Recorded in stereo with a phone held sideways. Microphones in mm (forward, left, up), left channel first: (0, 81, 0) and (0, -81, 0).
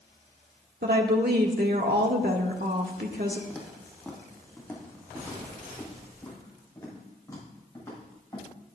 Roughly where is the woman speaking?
Right.